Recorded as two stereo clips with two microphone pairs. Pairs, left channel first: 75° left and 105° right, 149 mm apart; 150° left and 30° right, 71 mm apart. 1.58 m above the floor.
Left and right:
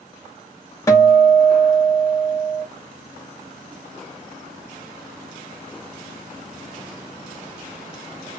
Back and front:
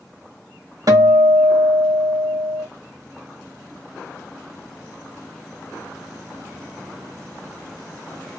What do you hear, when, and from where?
0.9 s a guitar: 5° left, 2.5 m